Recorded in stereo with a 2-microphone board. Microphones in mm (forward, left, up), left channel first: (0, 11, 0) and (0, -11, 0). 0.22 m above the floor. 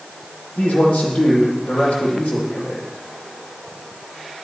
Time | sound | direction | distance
0.6 | a man speaking | 60° left (ahead or behind) | 8.5 m